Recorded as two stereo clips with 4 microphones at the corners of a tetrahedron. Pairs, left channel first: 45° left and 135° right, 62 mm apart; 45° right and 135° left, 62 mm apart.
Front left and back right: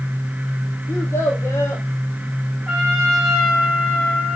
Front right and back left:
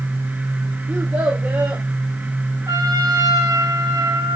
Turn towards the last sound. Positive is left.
turn(degrees=130)